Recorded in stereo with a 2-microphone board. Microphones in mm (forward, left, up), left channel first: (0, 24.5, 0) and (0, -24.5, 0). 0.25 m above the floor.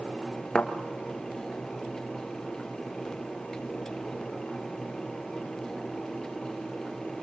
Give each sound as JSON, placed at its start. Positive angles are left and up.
{"t": 0.6, "sound": "a thud", "side_deg": 20, "distance_m": 1.5}